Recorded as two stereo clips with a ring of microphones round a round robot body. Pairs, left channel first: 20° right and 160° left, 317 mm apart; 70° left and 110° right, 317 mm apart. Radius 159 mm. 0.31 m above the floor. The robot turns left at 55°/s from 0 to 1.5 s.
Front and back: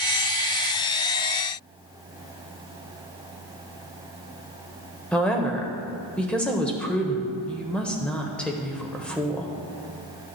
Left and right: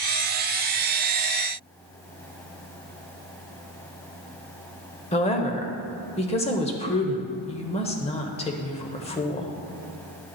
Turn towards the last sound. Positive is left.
turn(degrees=60)